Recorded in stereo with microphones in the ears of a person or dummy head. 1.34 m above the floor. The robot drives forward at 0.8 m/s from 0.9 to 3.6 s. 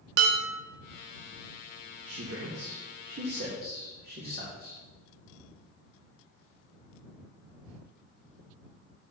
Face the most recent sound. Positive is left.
turn(degrees=-40)  # may be behind; listen again after turning